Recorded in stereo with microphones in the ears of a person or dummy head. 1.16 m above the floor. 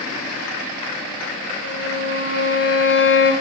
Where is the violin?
80° left, 2.5 m.